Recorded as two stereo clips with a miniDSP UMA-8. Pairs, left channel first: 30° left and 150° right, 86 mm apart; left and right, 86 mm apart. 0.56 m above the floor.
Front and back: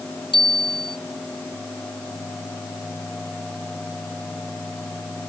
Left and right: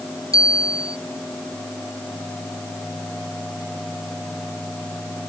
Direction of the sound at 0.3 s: 40° left.